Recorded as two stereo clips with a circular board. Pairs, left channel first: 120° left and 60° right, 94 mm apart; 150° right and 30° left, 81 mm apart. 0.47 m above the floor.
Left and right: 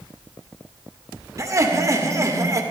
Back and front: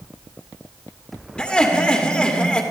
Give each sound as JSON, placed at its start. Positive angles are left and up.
{"t": 1.4, "sound": "laughter", "azimuth_deg": -80, "distance_m": 1.5}